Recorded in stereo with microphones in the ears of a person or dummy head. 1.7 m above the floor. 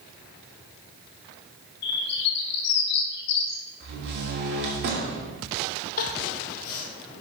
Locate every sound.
1.8 s a bird: 60° left (ahead or behind), 2.5 m
3.8 s a door slam: 60° right (ahead or behind), 3 m
6.0 s crying: 50° left (ahead or behind), 1.3 m